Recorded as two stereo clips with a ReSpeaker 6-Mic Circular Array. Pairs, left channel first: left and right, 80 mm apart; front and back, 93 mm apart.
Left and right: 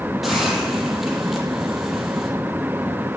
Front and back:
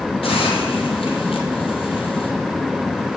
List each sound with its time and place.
0.2 s a hiss: straight ahead, 5.5 m